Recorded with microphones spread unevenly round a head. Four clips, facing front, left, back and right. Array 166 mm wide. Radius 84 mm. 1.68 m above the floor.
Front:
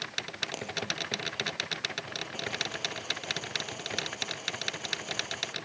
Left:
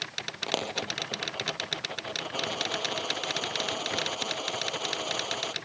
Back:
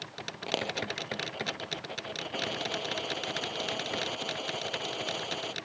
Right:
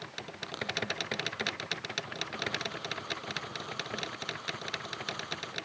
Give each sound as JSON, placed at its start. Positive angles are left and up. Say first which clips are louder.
{"t": 0.5, "sound": "a dropped coin", "louder": "left 5 dB, back 6 dB", "azimuth_deg": 130}